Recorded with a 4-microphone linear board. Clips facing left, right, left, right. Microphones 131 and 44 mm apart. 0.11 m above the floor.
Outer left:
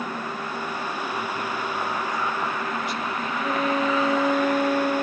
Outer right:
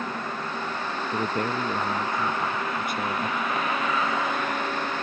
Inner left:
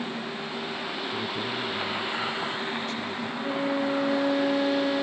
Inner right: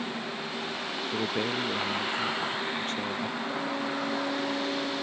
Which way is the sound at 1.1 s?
55° right (ahead or behind).